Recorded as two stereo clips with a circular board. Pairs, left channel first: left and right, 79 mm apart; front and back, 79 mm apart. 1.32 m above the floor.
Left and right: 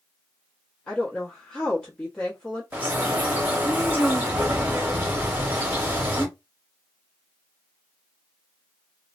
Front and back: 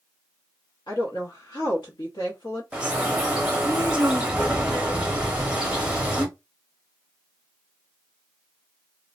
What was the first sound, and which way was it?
A woman speaking, 10° left.